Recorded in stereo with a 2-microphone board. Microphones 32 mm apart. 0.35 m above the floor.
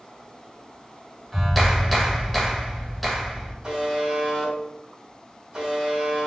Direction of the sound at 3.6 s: 25° right (ahead or behind).